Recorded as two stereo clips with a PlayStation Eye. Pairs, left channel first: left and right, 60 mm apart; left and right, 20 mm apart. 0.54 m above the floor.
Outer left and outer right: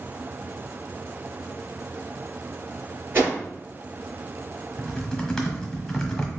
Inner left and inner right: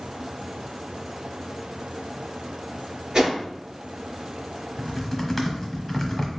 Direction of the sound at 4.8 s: 10° left (ahead or behind).